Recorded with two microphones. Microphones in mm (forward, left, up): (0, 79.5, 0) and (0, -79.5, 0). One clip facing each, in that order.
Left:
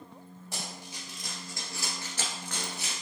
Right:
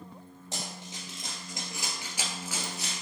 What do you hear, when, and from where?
0.5 s running footsteps: 25° right (ahead or behind), 1.5 m; by 3.0 s 5° left (ahead or behind), 0.9 m